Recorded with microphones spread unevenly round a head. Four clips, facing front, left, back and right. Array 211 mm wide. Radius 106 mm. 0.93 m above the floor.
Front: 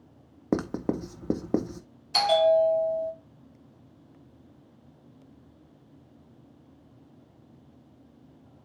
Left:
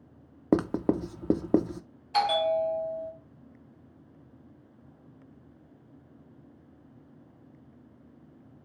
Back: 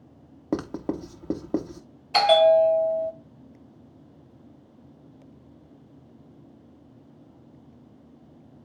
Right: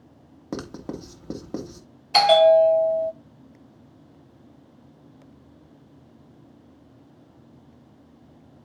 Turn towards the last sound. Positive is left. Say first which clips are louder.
# right 11 dB, back 4 dB
turn(degrees=-125)